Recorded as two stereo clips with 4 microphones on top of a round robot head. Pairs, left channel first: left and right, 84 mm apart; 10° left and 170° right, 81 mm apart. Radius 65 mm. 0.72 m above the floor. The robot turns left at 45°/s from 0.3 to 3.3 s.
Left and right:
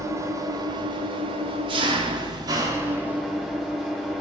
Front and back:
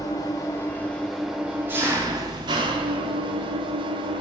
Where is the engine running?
40° right, 1.1 m; by 4.2 s 175° right, 1.1 m.